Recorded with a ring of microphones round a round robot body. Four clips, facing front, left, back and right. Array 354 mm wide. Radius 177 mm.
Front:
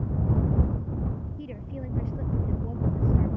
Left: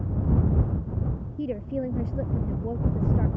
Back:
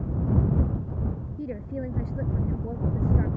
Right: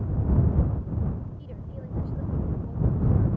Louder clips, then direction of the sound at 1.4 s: Left 13 dB, back 5 dB; 105° left.